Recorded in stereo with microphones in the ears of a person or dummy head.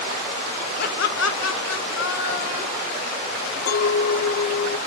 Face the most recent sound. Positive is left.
turn(degrees=45)  # may be behind; listen again after turning